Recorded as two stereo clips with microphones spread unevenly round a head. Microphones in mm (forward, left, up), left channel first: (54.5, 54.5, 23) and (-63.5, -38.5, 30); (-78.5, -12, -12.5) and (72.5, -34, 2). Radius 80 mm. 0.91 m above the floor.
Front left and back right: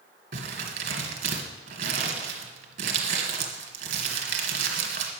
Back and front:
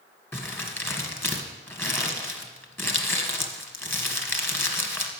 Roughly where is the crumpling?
Right.